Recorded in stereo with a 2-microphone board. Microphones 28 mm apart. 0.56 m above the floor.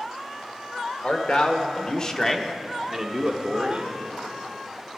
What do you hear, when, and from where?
1.0 s a man speaking: 45° left (ahead or behind), 1.7 m; by 4.0 s 45° right (ahead or behind), 1.4 m